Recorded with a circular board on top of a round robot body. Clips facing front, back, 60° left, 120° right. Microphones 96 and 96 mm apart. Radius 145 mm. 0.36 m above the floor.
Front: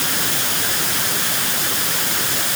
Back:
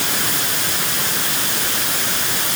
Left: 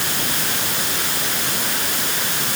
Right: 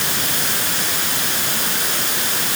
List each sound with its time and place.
Only background noise.